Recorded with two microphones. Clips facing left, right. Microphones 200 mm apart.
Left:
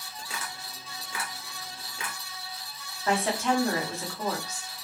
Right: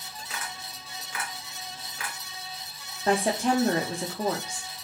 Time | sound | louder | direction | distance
0.2 | tapping | even | 25° left (ahead or behind) | 2 m
3.1 | a woman speaking | right 2 dB | 35° right (ahead or behind) | 0.9 m